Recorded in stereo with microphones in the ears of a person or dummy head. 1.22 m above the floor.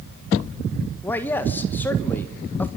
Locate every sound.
1.0 s a man speaking: 15° left (ahead or behind), 1.3 m